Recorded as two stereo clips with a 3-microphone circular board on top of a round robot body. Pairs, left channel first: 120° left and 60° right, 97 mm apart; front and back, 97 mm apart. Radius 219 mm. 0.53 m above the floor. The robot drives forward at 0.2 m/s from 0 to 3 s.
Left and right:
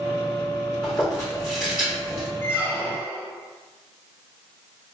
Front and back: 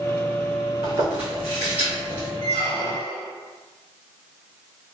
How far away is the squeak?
About 0.7 m.